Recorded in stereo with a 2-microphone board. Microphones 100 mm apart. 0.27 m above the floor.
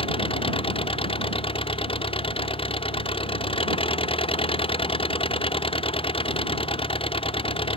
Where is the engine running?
65° left (ahead or behind).